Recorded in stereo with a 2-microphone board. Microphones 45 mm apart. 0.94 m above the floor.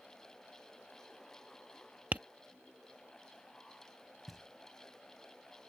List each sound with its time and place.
2.1 s tapping: 40° right (ahead or behind)
4.3 s knocking: 5° right (ahead or behind)